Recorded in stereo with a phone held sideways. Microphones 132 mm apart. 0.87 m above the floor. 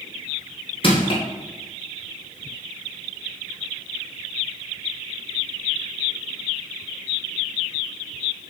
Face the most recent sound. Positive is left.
turn(degrees=40)  # may be behind; listen again after turning